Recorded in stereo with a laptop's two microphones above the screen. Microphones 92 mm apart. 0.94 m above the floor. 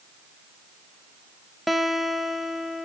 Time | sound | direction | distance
1.7 | a guitar | centre (ahead or behind) | 0.6 m